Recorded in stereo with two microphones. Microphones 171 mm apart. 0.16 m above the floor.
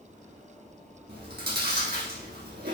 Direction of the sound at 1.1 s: 70° right (ahead or behind).